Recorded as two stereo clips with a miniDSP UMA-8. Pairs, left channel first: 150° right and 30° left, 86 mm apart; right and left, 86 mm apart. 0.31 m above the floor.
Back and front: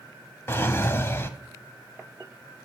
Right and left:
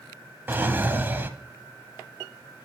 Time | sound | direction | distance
0.5 | a drawer | 155° left | 0.7 m